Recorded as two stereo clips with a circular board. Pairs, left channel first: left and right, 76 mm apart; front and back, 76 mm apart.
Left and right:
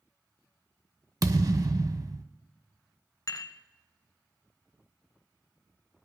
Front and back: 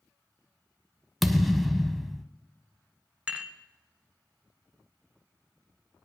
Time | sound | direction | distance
1.2 | a thud | 90° right | 0.8 m
3.3 | dishes clattering | 105° left | 1.3 m